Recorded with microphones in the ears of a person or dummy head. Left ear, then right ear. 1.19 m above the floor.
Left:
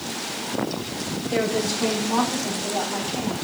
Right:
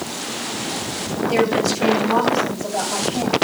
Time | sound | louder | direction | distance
1.3 | a woman speaking | right 5 dB | 75° right (ahead or behind) | 8 m